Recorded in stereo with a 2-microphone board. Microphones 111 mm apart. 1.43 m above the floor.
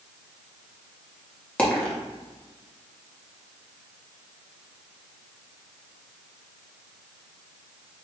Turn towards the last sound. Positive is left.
turn(degrees=10)  # may be behind; listen again after turning